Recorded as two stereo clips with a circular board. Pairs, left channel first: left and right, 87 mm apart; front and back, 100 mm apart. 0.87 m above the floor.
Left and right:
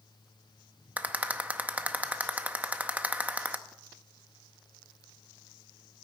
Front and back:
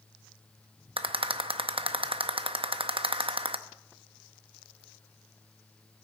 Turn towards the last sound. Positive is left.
turn(degrees=-160)